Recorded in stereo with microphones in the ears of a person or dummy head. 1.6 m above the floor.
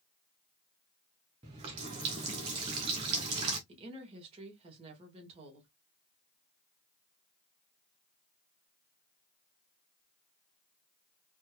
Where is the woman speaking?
30° right (ahead or behind), 1.9 m.